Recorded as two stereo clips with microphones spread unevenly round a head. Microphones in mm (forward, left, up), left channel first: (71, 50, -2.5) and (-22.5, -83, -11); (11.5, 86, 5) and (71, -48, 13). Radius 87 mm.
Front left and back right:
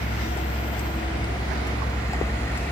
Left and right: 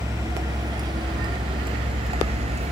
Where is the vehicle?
5° left; by 2.7 s 25° right.